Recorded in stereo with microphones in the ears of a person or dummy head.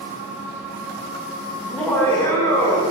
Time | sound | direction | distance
1.6 | laughter | 5° left (ahead or behind) | 1.8 m